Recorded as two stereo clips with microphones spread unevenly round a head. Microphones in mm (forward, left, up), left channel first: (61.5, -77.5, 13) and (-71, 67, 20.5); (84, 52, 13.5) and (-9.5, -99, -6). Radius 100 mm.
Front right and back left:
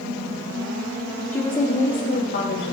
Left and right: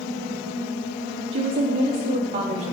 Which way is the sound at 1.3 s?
125° right.